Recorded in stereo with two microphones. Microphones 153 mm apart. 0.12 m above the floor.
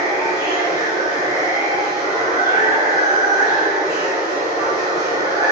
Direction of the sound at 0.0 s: 25° right (ahead or behind).